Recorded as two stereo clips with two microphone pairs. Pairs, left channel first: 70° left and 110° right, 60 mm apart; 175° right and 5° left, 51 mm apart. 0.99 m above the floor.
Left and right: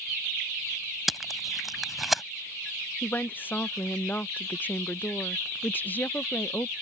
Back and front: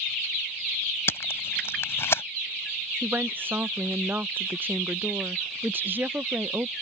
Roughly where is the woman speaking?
Ahead left.